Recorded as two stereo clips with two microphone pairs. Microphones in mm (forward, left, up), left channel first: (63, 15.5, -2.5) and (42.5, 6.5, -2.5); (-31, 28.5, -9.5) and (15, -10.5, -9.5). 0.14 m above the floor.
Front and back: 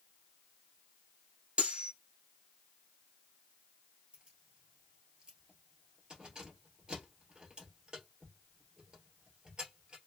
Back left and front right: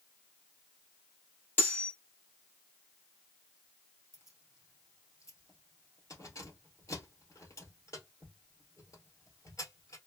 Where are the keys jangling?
155° left, 1.7 m.